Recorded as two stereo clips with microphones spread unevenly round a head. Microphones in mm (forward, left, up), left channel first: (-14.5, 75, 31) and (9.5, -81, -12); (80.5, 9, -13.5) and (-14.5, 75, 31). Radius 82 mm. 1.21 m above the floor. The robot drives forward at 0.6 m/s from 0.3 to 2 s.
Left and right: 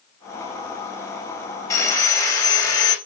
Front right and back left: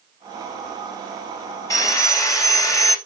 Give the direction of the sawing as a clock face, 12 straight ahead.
11 o'clock.